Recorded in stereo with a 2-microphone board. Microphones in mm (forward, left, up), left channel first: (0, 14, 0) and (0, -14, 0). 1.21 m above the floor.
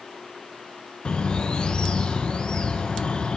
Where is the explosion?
I don't hear an explosion.